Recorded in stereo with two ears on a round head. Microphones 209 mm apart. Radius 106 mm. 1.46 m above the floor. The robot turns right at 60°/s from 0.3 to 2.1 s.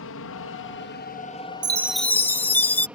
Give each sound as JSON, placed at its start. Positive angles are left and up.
{"t": 0.0, "sound": "an aircraft", "side_deg": 60}
{"t": 1.6, "sound": "a chime", "side_deg": -20}